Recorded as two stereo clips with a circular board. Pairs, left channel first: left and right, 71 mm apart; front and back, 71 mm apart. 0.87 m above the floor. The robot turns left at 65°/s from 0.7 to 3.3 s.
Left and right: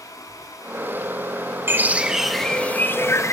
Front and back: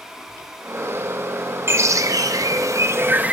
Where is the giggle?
I don't hear a giggle.